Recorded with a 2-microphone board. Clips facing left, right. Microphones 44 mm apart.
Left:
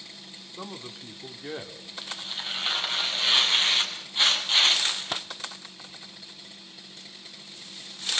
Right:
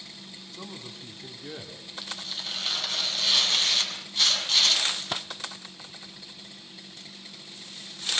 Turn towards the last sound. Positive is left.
turn(degrees=20)  # may be behind; listen again after turning